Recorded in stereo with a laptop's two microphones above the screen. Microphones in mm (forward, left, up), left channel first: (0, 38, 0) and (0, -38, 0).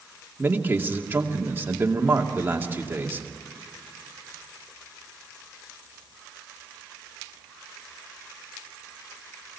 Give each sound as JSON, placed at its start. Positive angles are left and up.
{"t": 0.4, "sound": "a man speaking", "side_deg": -25, "distance_m": 2.5}